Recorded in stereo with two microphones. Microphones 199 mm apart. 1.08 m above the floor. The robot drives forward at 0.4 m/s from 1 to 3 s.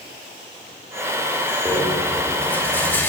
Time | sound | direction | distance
1.6 | a rattle | 5° left (ahead or behind) | 1.9 m